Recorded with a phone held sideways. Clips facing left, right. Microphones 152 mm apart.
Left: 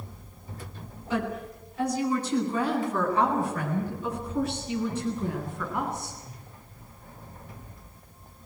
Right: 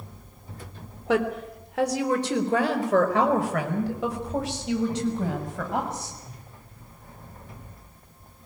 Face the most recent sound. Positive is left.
turn(degrees=-90)